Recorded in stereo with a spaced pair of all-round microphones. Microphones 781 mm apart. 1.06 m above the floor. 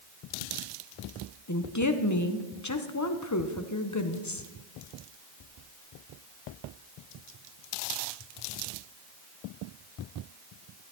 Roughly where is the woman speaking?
Left.